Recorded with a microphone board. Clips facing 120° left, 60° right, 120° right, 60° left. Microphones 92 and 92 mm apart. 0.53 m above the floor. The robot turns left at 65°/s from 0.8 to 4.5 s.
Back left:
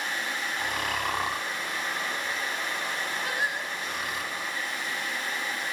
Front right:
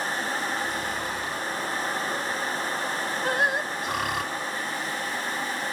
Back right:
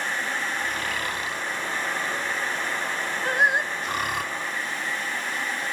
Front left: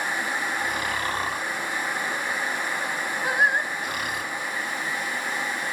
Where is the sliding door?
I don't hear a sliding door.